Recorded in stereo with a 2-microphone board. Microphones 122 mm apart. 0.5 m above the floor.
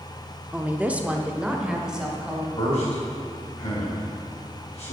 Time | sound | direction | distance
0.5 | a woman speaking | 10° right (ahead or behind) | 0.7 m
2.6 | a man speaking | 50° left (ahead or behind) | 3.5 m